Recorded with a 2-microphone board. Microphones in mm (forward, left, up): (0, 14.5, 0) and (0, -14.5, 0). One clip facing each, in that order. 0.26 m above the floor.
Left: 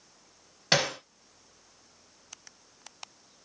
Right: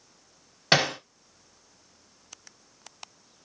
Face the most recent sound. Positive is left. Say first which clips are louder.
# right 3 dB
turn(degrees=-20)  # may be behind; listen again after turning